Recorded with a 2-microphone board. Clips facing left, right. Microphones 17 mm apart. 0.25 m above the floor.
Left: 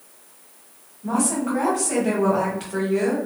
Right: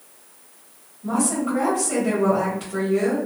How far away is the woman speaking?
About 1.2 m.